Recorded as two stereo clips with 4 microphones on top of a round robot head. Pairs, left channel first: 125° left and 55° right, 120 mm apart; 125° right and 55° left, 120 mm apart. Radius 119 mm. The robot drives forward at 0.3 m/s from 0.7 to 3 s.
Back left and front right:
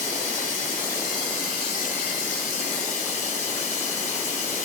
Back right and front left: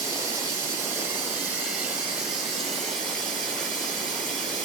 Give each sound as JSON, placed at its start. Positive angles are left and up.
{"t": 0.0, "sound": "running water", "azimuth_deg": 115, "distance_m": 1.1}